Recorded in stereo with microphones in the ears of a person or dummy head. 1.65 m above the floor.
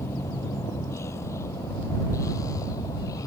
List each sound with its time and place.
0.0 s a vehicle: 20° left (ahead or behind); by 3.3 s 25° left (ahead or behind)